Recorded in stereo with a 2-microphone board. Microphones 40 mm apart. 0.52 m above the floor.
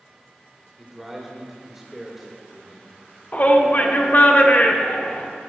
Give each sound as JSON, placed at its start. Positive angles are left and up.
{"t": 0.8, "sound": "a man speaking", "side_deg": -5, "distance_m": 1.7}
{"t": 3.3, "sound": "a shout", "side_deg": 45, "distance_m": 0.9}